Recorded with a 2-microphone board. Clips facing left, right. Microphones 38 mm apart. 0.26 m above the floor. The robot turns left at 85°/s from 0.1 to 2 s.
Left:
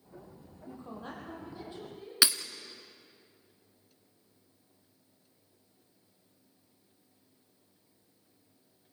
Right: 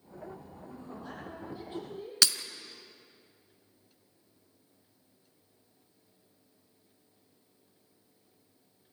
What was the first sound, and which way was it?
A woman speaking, 70° left.